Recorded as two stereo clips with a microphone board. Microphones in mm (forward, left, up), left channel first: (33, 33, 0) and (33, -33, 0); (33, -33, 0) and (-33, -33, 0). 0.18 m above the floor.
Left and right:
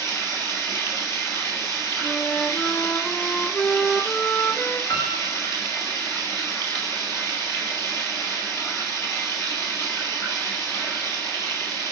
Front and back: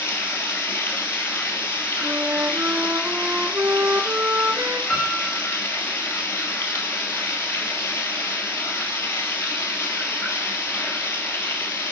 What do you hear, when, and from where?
0.0 s running water: 50° left, 3 m
2.0 s a flute: 145° left, 1.0 m
4.9 s a piano: 70° left, 5.5 m